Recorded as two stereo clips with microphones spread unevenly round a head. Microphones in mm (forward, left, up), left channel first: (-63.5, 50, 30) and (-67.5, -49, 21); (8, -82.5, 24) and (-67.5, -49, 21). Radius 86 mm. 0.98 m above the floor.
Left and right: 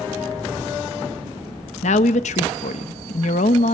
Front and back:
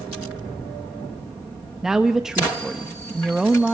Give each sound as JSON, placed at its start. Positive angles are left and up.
{"t": 1.8, "sound": "a woman speaking", "azimuth_deg": 70, "distance_m": 0.8}